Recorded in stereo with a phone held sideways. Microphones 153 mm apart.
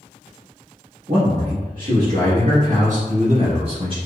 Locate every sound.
1.1 s a man speaking: 70° right (ahead or behind), 1.8 m; by 4.0 s 35° right (ahead or behind), 1.6 m